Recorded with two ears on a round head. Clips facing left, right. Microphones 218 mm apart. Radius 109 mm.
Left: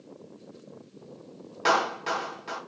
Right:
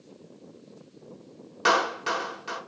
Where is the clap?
15° right (ahead or behind), 1.1 m.